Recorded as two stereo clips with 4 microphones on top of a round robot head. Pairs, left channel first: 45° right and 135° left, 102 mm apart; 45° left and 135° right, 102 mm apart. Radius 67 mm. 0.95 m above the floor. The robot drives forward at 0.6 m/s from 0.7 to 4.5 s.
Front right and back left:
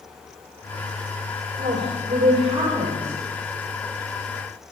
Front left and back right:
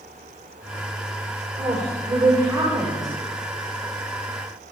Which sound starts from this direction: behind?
A woman speaking, at 1.6 s.